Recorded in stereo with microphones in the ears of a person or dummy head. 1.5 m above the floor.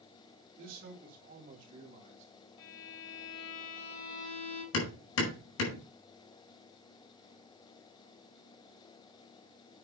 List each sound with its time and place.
0.6 s a man speaking: 60° right (ahead or behind), 4 m; by 2.3 s 45° right (ahead or behind), 3 m
2.6 s a violin: 60° left (ahead or behind), 3.5 m
4.7 s hammering: 80° left, 5 m